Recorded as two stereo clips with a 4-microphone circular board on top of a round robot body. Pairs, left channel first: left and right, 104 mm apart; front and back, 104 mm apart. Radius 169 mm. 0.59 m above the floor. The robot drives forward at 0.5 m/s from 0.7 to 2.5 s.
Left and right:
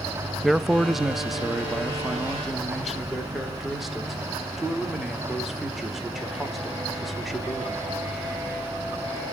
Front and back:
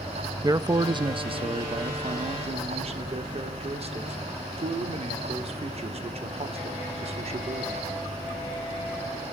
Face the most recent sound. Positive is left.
turn(degrees=180)